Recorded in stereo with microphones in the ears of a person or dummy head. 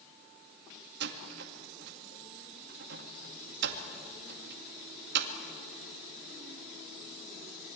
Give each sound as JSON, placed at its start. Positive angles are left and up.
{"t": 1.0, "sound": "a door slam", "side_deg": -65, "distance_m": 2.0}